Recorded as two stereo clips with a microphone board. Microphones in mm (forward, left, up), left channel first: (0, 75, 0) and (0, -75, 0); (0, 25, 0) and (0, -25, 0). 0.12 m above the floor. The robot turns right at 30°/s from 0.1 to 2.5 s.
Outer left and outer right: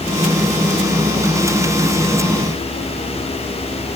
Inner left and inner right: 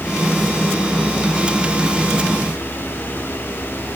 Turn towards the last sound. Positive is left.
No sound to turn to.